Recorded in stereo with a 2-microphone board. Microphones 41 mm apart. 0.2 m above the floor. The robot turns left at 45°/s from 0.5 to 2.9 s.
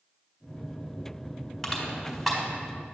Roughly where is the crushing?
Centre.